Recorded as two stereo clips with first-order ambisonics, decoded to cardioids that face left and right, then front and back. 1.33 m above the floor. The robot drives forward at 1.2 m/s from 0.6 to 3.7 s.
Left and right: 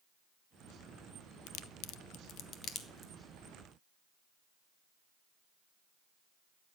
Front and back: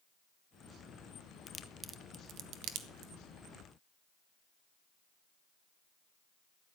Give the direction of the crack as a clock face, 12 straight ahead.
10 o'clock.